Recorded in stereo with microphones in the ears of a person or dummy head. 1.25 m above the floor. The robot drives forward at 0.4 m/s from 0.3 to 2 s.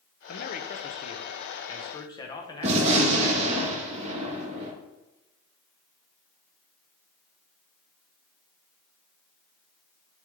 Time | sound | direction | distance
0.3 | a man speaking | 45° left (ahead or behind) | 0.5 m
2.6 | a gunshot | 35° right (ahead or behind) | 1.3 m